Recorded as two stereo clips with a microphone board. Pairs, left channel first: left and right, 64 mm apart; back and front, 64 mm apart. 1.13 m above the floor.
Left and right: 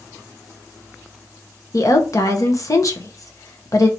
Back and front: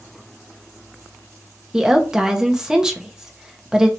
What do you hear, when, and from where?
1.7 s a woman speaking: 75° left, 1.0 m